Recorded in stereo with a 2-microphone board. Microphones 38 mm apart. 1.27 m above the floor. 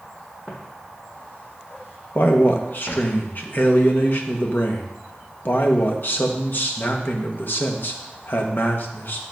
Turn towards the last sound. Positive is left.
turn(degrees=60)  # may be behind; listen again after turning